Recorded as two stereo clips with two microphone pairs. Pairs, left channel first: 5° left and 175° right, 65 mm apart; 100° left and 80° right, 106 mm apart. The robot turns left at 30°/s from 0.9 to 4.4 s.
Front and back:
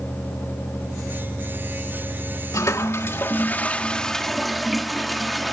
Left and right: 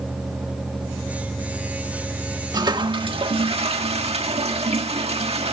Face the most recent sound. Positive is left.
turn(degrees=-85)